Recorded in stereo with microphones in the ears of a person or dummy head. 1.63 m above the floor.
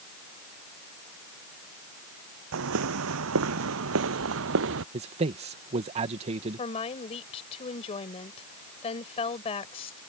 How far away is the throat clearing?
No throat clearing in this recording.